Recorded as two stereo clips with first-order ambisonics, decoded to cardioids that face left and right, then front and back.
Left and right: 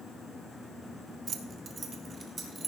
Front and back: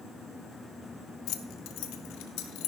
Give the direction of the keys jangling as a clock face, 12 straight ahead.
1 o'clock.